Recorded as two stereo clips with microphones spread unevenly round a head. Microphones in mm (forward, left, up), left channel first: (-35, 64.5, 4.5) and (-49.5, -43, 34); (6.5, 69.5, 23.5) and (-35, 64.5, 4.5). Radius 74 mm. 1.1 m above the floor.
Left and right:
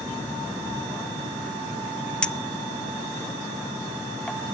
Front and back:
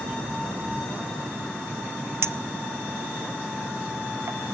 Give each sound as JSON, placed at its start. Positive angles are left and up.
{"t": 2.2, "sound": "a clink", "azimuth_deg": 165, "distance_m": 0.7}